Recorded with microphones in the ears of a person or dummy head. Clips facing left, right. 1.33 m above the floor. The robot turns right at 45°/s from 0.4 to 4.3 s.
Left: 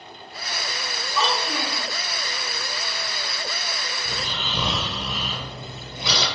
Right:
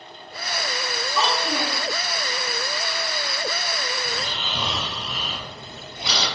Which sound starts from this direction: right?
A child speaking, at 1.1 s.